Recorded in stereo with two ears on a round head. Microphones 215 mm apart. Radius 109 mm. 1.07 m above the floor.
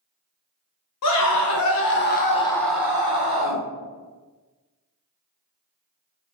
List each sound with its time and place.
1.0 s a scream: 70° left (ahead or behind), 1.3 m; by 3.6 s 35° right (ahead or behind), 1.2 m